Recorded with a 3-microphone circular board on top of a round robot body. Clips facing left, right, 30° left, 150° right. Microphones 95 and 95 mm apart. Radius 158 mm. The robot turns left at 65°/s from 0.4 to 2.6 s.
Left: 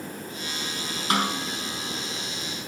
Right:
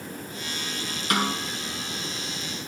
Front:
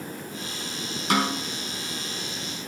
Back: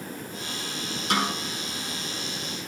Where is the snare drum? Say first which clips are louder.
Left 1 dB, front 2 dB; 25° left, 4.5 m; by 1.4 s 5° left, 4.5 m.